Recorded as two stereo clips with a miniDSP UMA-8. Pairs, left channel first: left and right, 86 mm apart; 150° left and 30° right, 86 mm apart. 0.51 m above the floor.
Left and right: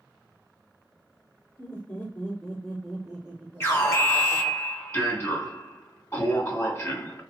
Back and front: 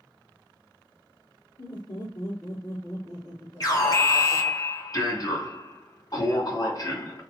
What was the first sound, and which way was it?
Laughter, 145° left.